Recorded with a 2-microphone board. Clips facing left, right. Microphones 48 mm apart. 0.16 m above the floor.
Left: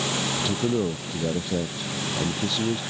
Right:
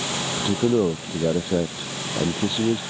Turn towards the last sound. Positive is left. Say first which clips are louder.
# right 7 dB
turn(degrees=-20)  # may be behind; listen again after turning